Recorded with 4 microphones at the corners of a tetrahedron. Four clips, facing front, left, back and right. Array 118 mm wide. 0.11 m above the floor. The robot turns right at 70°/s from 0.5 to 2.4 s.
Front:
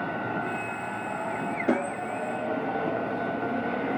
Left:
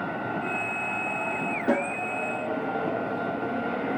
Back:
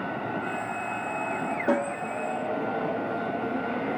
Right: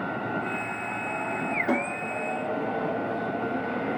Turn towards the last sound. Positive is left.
turn(degrees=170)